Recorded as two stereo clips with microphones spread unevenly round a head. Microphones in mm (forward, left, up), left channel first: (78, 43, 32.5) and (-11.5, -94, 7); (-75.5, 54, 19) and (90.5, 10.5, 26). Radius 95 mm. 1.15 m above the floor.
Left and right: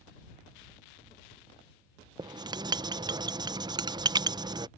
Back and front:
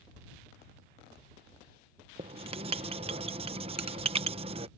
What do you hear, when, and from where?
2.2 s writing: 70° right